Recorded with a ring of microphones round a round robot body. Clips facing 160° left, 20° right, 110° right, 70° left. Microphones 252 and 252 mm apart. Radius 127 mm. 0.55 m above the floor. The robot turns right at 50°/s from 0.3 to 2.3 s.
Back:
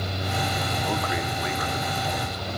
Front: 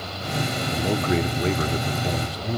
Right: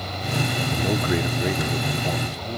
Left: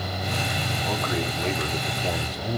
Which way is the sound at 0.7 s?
80° right.